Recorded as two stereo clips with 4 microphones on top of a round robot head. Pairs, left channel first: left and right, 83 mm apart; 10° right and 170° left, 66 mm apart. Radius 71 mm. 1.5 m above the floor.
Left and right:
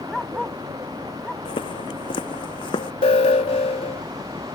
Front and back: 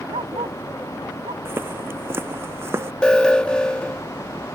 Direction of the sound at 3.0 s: 70° left.